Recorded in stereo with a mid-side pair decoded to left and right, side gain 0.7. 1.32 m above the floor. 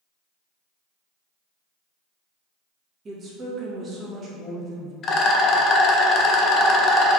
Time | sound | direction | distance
3.0 | a woman speaking | 30° right | 0.8 m
5.0 | a rattle | 40° left | 0.5 m